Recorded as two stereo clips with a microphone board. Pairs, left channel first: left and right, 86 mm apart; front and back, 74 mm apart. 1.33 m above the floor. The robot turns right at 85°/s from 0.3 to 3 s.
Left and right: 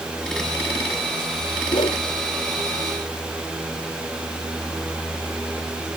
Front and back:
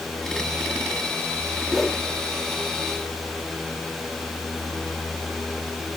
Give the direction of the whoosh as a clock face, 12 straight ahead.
9 o'clock.